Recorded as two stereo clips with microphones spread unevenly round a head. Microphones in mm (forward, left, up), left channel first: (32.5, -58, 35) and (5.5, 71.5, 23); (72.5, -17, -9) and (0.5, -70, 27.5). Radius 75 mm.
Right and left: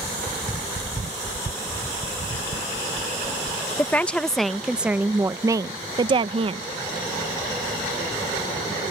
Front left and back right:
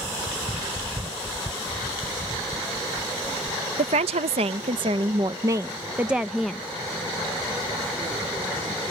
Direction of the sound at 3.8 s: 160° right.